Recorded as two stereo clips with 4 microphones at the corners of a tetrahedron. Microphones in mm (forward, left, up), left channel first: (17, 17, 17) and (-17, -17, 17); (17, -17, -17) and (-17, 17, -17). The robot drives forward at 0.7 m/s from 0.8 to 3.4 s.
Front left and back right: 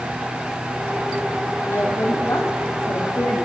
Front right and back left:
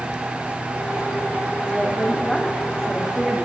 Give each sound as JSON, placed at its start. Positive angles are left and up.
{"t": 1.7, "sound": "a woman speaking", "azimuth_deg": 30, "distance_m": 6.0}